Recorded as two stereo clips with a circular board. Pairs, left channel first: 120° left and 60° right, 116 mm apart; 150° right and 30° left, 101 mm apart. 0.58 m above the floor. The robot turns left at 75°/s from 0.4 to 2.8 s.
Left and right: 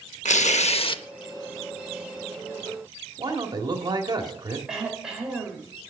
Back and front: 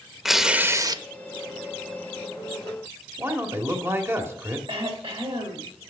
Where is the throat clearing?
25° left, 2.5 m.